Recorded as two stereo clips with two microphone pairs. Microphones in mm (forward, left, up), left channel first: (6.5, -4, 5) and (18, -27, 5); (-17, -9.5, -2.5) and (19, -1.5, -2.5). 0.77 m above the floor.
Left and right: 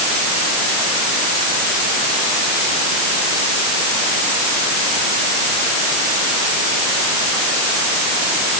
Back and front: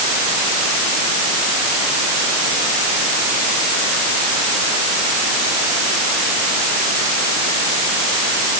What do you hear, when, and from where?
Only background noise.